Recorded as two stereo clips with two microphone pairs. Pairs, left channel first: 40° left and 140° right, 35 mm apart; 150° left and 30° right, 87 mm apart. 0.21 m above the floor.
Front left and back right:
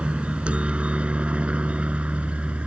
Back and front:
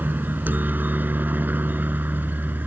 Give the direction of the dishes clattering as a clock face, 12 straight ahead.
I don't hear dishes clattering.